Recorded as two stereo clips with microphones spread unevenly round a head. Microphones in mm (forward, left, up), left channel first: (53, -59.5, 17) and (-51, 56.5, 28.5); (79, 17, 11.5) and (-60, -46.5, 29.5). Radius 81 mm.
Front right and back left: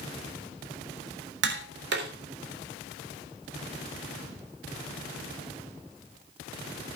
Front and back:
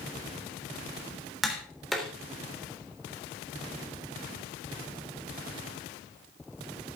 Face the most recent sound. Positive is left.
turn(degrees=115)